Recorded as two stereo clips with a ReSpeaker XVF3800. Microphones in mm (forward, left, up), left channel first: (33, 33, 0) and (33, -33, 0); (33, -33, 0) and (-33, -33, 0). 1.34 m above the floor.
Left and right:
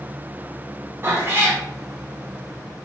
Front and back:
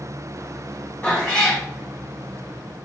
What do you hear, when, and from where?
1.0 s a cat meowing: 50° right, 1.6 m